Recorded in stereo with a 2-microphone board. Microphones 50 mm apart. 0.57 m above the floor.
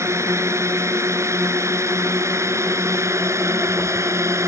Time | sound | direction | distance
0.0 | a drone | 80° right | ?